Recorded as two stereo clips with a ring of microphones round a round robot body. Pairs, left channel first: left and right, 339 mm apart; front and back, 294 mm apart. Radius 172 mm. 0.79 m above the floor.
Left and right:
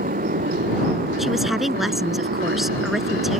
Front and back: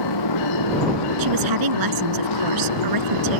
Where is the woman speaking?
Straight behind.